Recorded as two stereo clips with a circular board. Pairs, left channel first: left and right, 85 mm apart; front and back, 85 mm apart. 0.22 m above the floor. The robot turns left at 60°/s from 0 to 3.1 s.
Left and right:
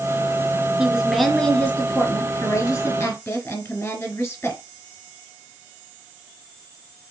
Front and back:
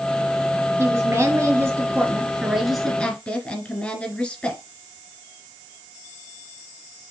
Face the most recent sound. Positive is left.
turn(degrees=55)